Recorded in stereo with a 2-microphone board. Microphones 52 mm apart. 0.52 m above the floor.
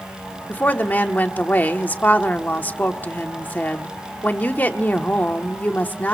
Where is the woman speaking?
35° left (ahead or behind), 1.1 m.